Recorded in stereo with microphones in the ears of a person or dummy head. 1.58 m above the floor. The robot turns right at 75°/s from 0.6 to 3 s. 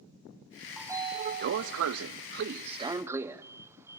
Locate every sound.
0.8 s a sliding door: centre (ahead or behind), 0.7 m; by 4.0 s 10° right (ahead or behind), 0.7 m